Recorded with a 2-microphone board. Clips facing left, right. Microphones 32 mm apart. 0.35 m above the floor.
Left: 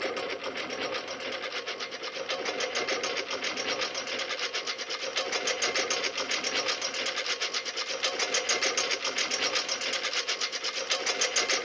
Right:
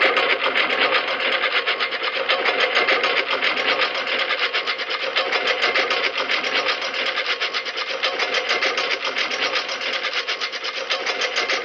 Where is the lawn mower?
55° right (ahead or behind); by 11.7 s 25° right (ahead or behind).